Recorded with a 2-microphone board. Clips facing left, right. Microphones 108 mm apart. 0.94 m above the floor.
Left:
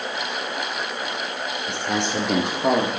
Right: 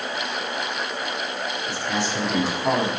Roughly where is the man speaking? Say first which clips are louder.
Left 2 dB; left.